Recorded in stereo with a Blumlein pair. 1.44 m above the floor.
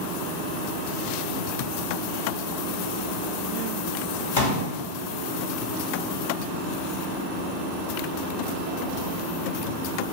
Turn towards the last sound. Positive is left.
turn(degrees=55)